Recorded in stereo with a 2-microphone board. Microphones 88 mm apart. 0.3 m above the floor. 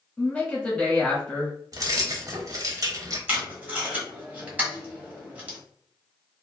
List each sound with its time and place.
0.2 s a woman speaking: 10° left (ahead or behind), 1.3 m
1.7 s keys jangling: 45° right (ahead or behind), 0.7 m
3.3 s tape being pulled: 20° right (ahead or behind), 1.2 m